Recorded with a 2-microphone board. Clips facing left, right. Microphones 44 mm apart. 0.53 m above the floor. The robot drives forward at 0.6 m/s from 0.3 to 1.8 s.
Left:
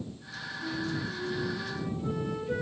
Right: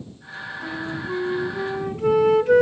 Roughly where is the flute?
Right.